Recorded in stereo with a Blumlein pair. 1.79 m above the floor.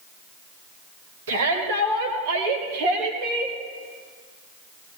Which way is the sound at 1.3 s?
60° right.